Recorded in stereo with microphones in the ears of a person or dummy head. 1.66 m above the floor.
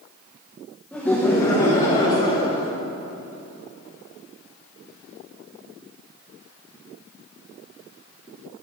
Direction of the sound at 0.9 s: 5° left (ahead or behind).